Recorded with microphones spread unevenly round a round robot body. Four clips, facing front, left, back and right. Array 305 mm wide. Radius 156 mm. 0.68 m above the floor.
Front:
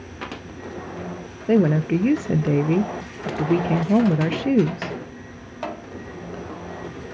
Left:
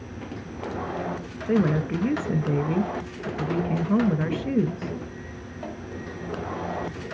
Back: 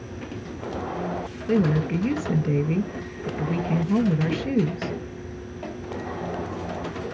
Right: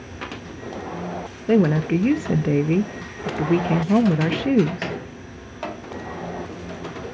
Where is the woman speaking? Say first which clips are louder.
Right 5 dB, front 4 dB; 45° right, 0.5 m.